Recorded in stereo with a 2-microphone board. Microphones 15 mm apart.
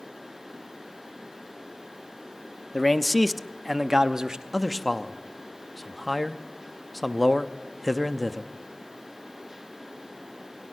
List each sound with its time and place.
2.7 s a man speaking: 25° left (ahead or behind), 0.7 m; by 4.4 s 50° right (ahead or behind), 0.7 m
4.5 s a man speaking: 5° left (ahead or behind), 0.7 m